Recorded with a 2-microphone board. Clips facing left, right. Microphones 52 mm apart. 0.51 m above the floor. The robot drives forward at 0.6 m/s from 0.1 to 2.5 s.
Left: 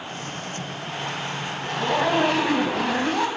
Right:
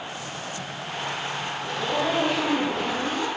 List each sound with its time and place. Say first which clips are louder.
1.6 s a zipper: left 4 dB; 55° left (ahead or behind), 0.8 m; by 3.3 s 75° left (ahead or behind), 0.7 m